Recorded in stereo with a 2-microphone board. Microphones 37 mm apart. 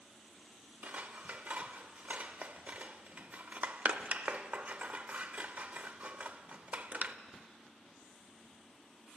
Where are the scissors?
45° right (ahead or behind), 0.7 m.